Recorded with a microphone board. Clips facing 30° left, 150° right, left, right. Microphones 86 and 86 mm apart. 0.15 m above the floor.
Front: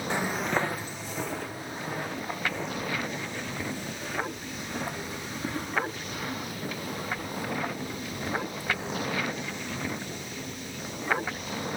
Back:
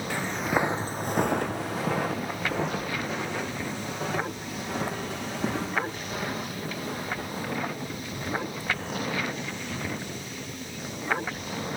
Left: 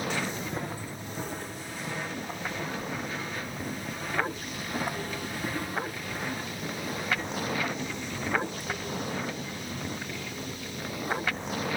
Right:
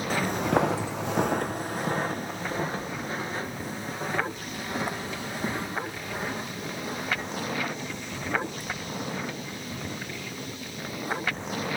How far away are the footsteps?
About 0.5 m.